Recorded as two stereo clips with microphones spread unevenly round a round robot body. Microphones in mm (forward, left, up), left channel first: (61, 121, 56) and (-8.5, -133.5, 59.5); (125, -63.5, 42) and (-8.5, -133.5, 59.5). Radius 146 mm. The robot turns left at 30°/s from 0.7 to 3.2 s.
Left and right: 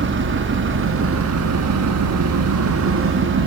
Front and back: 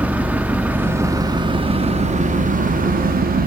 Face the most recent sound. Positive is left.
turn(degrees=-145)